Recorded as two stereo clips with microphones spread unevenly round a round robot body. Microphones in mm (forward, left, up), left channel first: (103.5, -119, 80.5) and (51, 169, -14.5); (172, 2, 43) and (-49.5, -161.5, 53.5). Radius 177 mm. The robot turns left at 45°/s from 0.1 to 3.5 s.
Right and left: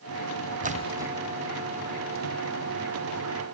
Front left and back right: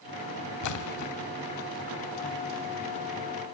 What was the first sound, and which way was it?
A splash, 45° left.